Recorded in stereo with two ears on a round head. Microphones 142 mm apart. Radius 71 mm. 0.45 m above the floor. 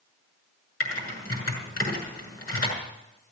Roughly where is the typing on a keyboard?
Left.